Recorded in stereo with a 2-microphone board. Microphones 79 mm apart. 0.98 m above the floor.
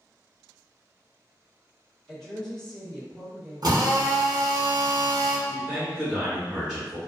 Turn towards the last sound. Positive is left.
turn(degrees=-10)  # may be behind; listen again after turning